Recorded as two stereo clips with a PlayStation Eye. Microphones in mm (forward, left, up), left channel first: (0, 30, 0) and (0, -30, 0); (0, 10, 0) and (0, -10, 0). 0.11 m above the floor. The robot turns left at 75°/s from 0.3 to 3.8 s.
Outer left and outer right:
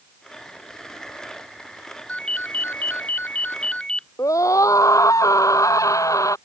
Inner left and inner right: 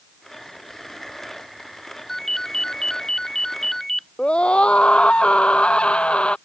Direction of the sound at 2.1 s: 155° left.